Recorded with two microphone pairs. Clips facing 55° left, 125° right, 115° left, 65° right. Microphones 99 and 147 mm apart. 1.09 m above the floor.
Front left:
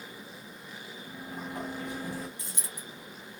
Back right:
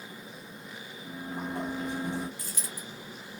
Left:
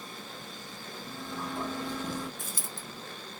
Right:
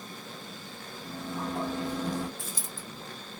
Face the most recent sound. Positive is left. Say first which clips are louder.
# back right 2 dB, right 1 dB
turn(degrees=115)